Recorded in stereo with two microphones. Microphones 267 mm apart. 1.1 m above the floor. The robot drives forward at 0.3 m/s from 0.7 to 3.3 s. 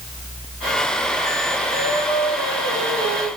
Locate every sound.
1.7 s singing: 40° left (ahead or behind), 8 m